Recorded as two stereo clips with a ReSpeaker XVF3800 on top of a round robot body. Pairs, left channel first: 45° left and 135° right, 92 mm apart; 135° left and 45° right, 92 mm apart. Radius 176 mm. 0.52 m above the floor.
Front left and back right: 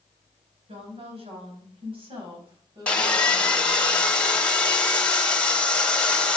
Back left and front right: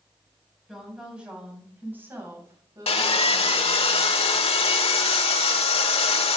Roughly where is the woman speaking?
Behind right.